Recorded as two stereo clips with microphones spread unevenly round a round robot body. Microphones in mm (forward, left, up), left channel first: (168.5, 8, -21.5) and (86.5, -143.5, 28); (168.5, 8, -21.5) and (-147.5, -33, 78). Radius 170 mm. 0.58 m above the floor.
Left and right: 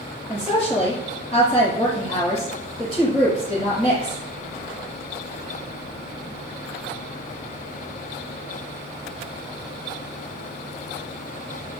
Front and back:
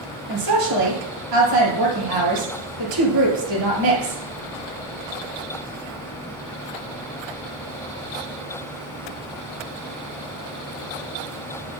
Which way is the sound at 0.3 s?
165° left.